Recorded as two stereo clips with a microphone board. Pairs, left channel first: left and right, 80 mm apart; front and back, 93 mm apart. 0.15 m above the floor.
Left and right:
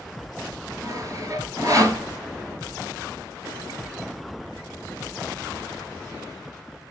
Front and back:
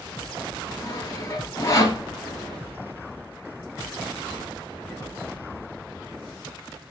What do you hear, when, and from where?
0.8 s sawing: 50° right, 1.3 m